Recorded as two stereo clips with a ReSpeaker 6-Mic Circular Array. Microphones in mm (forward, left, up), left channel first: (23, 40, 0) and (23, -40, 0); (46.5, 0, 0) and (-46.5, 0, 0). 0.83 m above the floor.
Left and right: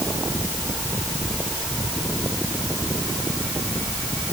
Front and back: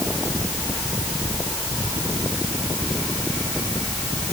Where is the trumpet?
No trumpet in this recording.